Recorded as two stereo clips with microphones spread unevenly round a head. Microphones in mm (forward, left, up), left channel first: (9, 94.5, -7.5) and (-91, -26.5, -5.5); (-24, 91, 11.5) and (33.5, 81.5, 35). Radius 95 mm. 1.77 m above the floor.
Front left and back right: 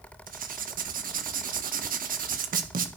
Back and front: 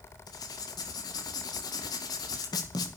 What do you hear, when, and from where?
0.3 s writing: 160° right, 1.9 m